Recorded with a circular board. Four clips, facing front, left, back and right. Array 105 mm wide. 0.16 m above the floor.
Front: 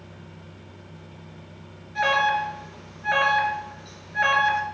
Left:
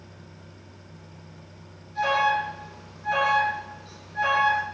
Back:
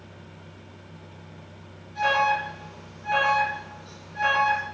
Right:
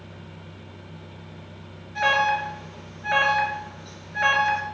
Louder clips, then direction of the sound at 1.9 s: Right 1 dB, front 1 dB; 45° right.